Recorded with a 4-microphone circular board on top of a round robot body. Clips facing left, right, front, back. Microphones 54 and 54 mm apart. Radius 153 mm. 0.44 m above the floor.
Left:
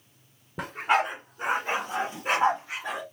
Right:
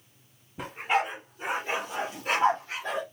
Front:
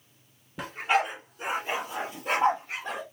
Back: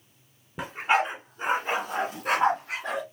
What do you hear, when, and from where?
0.6 s a dog barking: 110° left, 1.9 m; by 3.0 s 170° left, 2.5 m